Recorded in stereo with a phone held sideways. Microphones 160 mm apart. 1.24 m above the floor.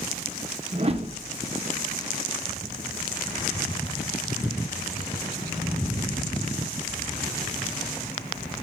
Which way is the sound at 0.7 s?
40° right (ahead or behind).